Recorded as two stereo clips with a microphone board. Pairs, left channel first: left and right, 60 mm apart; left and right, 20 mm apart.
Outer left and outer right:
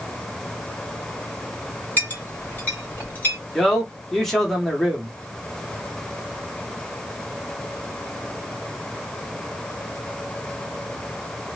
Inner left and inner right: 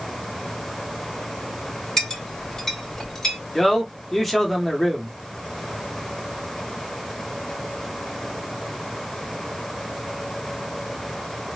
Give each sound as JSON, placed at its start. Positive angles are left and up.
{"t": 2.0, "sound": "a clink", "side_deg": 30, "distance_m": 2.5}
{"t": 3.5, "sound": "a man speaking", "side_deg": 5, "distance_m": 1.8}